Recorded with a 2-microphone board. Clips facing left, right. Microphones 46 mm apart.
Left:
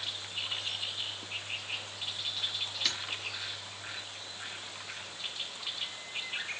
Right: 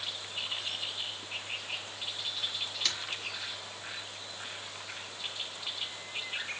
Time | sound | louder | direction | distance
2.9 | a splash | even | 5° left (ahead or behind) | 0.5 m